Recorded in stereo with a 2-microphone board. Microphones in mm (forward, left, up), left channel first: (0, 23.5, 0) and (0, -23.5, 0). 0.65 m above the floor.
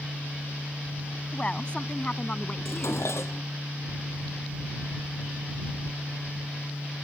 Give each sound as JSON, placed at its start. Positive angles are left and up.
{"t": 1.3, "sound": "a woman speaking", "side_deg": 25}
{"t": 2.6, "sound": "dishes clattering", "side_deg": 65}